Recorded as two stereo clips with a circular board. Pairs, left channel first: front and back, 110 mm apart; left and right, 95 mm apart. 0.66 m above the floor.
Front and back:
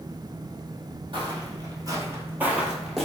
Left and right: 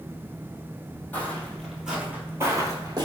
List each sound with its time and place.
1.1 s footsteps: 155° left, 0.9 m; by 3.0 s 90° right, 0.9 m